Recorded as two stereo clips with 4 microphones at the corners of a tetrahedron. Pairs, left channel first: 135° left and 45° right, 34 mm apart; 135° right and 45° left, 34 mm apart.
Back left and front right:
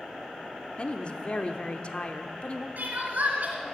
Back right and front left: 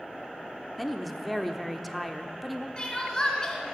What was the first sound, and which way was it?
A woman speaking, 135° left.